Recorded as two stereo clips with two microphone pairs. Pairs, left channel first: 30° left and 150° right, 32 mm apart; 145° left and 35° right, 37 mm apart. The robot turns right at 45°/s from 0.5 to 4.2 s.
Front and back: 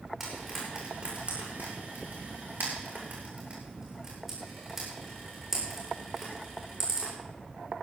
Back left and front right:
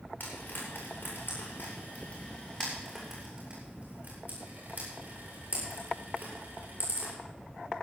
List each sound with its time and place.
0.2 s frying: 125° left, 8 m; by 7.1 s 70° right, 8 m